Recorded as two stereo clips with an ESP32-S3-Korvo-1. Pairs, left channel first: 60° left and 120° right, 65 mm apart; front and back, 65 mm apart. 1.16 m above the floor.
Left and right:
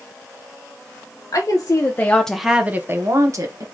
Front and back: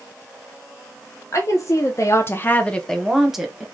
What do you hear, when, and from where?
1.3 s a woman speaking: 35° left, 1.2 m; by 3.6 s 100° right, 1.3 m